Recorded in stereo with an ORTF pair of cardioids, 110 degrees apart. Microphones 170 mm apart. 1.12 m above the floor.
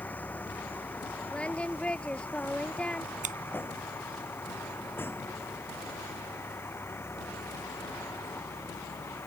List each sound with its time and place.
0.0 s a vehicle: 10° left; by 9.3 s 15° left
1.3 s singing: 5° left
3.2 s scissors: 50° right